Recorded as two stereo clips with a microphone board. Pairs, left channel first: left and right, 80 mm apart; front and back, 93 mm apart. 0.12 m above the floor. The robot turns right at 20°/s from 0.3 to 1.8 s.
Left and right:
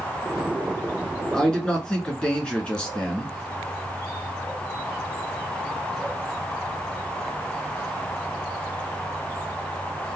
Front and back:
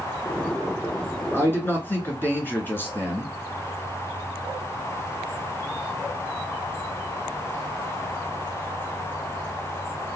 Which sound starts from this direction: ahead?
A man speaking, at 1.3 s.